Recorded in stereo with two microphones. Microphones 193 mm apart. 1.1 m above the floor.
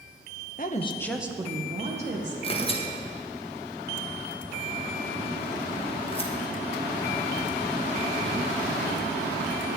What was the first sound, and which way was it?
A woman speaking, 45° left (ahead or behind).